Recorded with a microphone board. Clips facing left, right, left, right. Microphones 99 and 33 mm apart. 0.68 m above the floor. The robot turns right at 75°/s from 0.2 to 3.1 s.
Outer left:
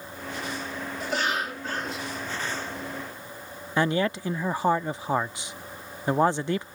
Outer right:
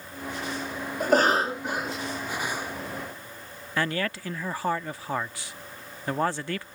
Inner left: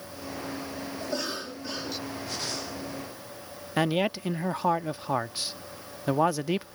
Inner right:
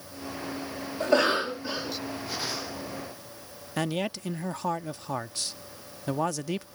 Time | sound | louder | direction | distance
1.0 | a cough | outer right 8 dB, inner right 12 dB | 70° right | ?
3.8 | a man speaking | outer left 4 dB, inner left 4 dB | 20° left (ahead or behind) | ?